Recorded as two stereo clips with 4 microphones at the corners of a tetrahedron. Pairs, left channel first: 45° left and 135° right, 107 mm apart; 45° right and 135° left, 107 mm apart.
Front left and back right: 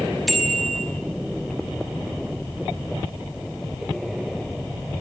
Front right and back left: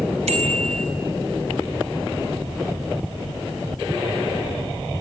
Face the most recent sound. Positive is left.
turn(degrees=135)